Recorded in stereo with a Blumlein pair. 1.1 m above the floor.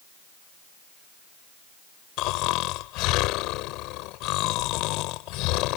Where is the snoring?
40° left.